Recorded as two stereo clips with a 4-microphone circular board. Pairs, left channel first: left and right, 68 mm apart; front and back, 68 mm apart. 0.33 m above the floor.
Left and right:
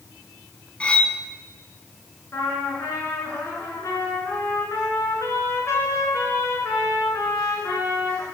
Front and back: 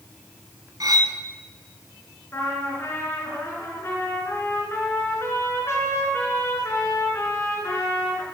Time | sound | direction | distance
0.8 | cutlery clinking | 160° left | 1.5 m
2.3 | a trumpet | 50° left | 4 m